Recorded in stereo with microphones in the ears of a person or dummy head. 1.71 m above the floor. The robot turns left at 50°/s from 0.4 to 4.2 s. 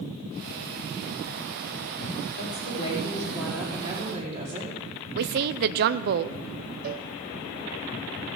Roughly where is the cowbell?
Right.